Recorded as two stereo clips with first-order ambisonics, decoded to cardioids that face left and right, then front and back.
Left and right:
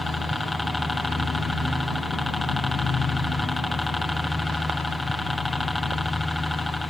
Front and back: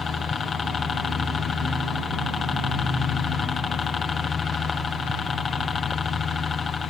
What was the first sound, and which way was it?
A helicopter, 15° left.